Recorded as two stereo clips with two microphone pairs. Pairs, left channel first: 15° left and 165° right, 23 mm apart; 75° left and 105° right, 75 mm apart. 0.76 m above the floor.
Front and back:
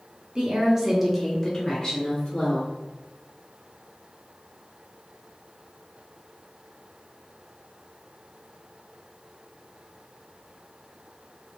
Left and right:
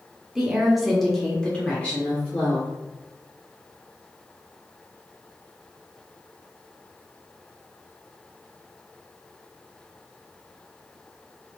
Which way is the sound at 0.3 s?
Straight behind.